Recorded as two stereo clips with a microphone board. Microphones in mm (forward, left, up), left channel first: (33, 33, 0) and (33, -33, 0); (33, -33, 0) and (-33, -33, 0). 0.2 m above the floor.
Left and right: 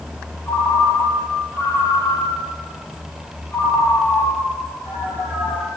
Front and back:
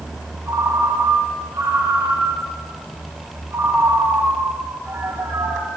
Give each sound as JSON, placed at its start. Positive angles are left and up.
{"t": 0.5, "sound": "a ringtone", "azimuth_deg": 135, "distance_m": 4.0}